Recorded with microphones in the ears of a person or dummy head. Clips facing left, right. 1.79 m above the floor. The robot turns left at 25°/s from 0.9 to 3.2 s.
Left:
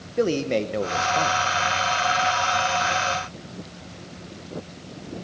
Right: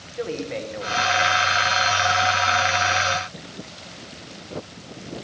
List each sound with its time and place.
0.2 s a man speaking: 50° left (ahead or behind), 1.4 m; by 1.4 s 60° left (ahead or behind), 1.4 m